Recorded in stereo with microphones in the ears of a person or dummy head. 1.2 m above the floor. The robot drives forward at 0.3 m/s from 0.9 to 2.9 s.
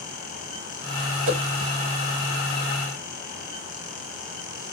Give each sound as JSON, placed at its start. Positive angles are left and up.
{"t": 1.3, "sound": "a whoosh", "side_deg": -45, "distance_m": 0.7}